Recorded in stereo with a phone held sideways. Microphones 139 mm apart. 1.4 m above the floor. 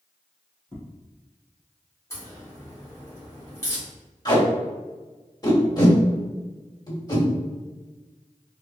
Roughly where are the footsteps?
Centre.